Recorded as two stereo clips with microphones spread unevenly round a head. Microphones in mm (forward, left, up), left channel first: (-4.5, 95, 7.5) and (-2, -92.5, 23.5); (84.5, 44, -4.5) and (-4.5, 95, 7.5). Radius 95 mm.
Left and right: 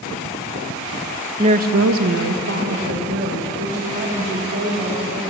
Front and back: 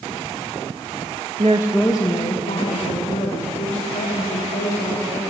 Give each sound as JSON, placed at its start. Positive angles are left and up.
{"t": 1.4, "sound": "a woman speaking", "azimuth_deg": -155, "distance_m": 0.6}